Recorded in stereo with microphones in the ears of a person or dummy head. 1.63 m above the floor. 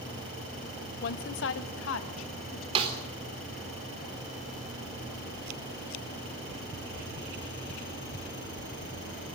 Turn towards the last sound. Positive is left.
turn(degrees=-30)  # may be behind; listen again after turning